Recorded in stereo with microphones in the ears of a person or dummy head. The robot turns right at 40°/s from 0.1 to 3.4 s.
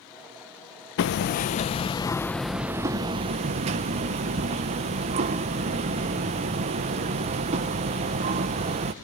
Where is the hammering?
125° left, 0.7 m; by 8.9 s 140° right, 0.7 m.